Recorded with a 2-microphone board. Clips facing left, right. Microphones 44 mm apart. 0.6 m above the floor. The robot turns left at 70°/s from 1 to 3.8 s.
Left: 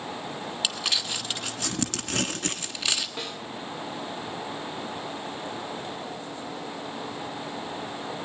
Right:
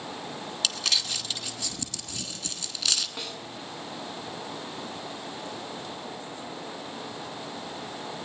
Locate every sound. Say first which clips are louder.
0.6 s crumpling: even; 20° left (ahead or behind), 1.4 m; by 3.1 s 10° left (ahead or behind), 1.4 m
3.2 s a snare drum: left 2 dB; 5° left (ahead or behind), 2 m; by 3.4 s 20° left (ahead or behind), 2 m